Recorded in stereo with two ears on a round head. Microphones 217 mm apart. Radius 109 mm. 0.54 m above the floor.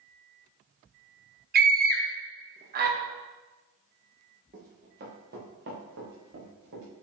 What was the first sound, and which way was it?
A scream, 40° right (ahead or behind).